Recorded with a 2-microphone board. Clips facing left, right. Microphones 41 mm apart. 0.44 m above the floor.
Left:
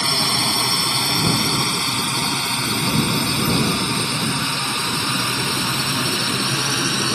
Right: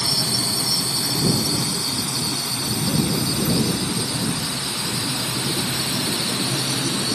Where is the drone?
65° left (ahead or behind); by 7.2 s 70° left (ahead or behind).